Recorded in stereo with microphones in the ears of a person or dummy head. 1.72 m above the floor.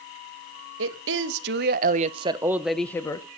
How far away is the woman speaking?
About 2.5 m.